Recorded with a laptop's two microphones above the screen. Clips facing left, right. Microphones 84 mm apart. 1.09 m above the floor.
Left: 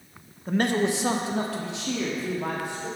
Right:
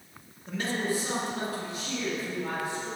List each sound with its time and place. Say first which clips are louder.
0.5 s a man speaking: left 7 dB; 40° left (ahead or behind), 0.7 m; by 2.9 s 60° left (ahead or behind), 2 m